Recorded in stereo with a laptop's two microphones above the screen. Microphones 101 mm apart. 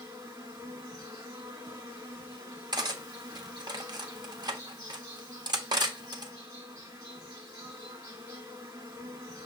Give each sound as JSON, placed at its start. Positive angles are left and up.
{"t": 0.0, "sound": "an insect", "side_deg": -40, "distance_m": 1.6}
{"t": 2.7, "sound": "cutlery clinking", "side_deg": -45, "distance_m": 0.7}